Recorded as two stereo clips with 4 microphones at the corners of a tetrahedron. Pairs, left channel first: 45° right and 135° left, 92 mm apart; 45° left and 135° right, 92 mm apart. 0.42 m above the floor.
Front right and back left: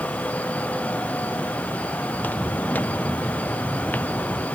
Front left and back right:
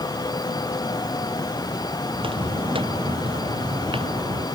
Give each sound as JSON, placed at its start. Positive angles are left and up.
{"t": 2.1, "sound": "footsteps", "azimuth_deg": -115}